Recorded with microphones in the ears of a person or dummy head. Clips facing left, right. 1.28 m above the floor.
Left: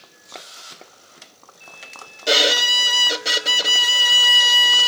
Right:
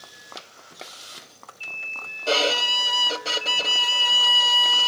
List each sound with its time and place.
2.3 s a violin: 20° left (ahead or behind)